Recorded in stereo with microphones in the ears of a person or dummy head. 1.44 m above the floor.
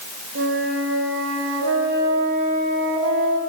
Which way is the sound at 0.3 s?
80° right.